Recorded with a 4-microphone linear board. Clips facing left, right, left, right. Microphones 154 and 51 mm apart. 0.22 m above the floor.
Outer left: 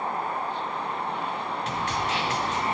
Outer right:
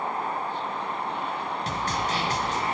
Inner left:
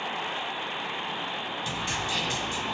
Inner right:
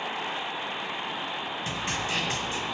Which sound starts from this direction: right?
A snare drum, at 1.7 s.